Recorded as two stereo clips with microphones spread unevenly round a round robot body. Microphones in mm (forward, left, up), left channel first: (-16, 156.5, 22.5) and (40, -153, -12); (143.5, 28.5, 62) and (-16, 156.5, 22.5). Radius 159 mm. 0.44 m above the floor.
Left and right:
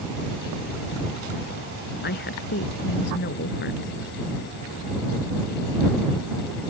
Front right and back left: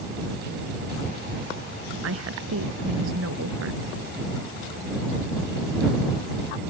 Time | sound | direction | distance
2.0 | a woman speaking | 160° left | ?